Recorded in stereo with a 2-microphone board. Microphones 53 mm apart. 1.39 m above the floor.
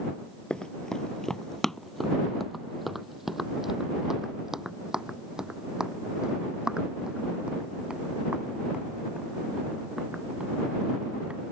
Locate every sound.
0.5 s running footsteps: 15° left (ahead or behind); by 11.4 s 25° right (ahead or behind)